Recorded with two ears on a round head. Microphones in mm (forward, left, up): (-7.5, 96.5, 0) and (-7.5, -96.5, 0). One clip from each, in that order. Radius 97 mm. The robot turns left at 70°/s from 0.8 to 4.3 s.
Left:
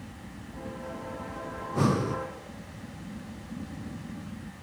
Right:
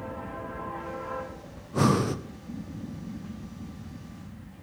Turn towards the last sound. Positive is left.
turn(degrees=175)